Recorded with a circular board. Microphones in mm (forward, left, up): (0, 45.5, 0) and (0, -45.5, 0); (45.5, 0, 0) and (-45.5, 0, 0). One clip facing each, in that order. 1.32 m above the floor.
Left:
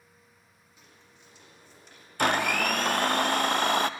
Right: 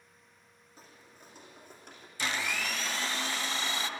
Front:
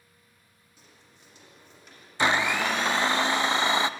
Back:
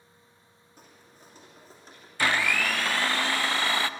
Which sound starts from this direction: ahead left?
A blender, at 2.2 s.